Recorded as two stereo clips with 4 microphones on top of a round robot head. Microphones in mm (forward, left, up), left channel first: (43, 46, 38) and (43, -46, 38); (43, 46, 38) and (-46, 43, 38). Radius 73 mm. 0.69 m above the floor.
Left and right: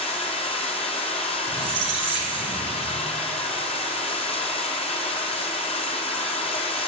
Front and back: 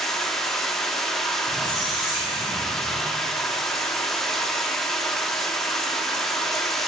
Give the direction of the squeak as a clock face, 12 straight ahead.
3 o'clock.